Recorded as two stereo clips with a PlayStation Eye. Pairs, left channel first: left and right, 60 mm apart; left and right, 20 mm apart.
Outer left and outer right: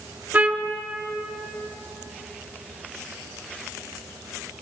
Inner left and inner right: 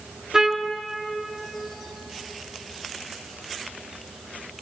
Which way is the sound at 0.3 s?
25° right (ahead or behind).